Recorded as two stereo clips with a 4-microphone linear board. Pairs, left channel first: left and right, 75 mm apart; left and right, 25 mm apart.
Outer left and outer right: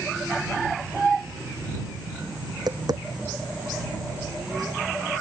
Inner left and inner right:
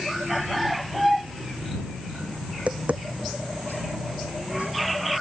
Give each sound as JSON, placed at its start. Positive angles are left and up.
{"t": 2.5, "sound": "tapping", "side_deg": -60}